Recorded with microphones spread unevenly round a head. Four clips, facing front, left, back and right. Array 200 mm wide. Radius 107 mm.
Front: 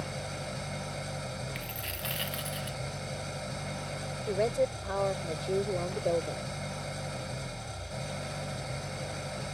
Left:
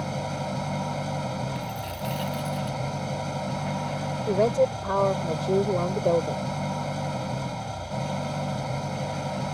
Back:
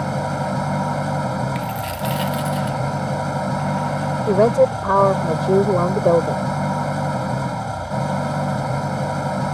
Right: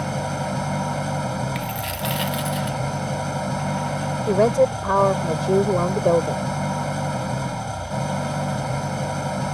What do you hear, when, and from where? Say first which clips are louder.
0.0 s an engine running: right 5 dB, back 16 dB; 165° right
1.6 s a dropped coin: right 5 dB, back 16 dB; 120° right
4.3 s a woman speaking: right 5 dB, back 14 dB; 160° right